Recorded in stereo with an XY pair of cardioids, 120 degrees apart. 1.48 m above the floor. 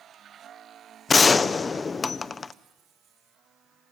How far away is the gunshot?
About 0.7 m.